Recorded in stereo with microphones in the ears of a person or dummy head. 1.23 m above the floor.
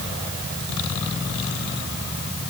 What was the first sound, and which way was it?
Only background noise.